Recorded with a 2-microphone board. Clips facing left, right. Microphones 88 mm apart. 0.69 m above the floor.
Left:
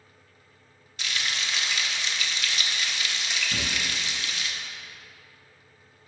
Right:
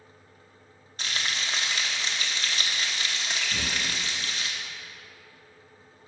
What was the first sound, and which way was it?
Frying, 35° right (ahead or behind).